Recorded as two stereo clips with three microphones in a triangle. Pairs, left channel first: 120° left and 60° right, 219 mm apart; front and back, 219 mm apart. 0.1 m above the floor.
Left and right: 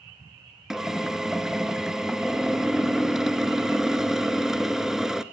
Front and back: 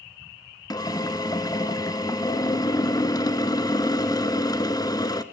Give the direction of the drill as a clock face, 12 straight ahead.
11 o'clock.